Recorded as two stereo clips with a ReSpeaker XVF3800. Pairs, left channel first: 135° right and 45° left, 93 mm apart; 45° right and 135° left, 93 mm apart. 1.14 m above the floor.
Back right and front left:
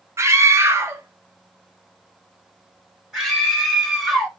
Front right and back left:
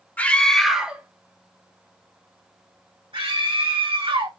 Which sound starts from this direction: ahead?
A scream, at 0.2 s.